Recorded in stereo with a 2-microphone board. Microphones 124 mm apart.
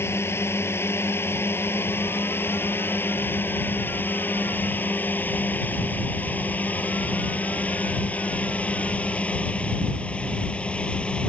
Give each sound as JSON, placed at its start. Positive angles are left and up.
{"t": 0.0, "sound": "a drone", "side_deg": 20}